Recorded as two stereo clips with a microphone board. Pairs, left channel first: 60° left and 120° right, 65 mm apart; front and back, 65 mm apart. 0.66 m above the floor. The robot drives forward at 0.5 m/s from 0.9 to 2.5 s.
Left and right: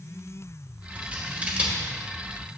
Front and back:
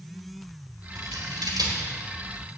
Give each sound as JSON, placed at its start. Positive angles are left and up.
{"t": 0.9, "sound": "scissors", "azimuth_deg": 170, "distance_m": 1.5}